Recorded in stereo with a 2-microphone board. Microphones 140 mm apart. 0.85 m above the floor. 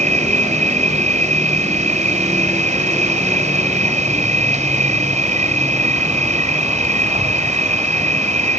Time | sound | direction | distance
0.0 | an insect | 60° right (ahead or behind) | ?